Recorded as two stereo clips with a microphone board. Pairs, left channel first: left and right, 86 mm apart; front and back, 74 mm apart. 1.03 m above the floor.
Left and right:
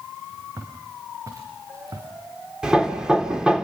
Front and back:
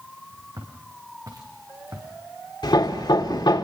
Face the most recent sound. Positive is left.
turn(degrees=-10)